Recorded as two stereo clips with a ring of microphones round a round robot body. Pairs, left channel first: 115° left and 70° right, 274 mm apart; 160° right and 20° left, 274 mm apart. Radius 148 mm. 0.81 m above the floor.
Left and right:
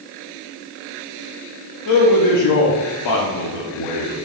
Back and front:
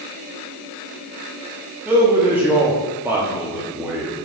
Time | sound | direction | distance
1.9 | a man speaking | 105° left | 1.1 m